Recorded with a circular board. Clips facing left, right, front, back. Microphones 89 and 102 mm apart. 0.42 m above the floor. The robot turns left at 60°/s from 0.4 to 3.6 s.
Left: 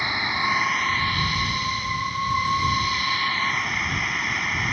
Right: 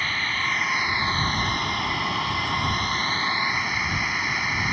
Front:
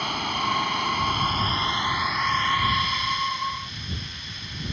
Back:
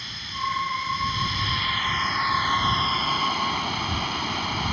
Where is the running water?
15° left; by 4.7 s 175° right.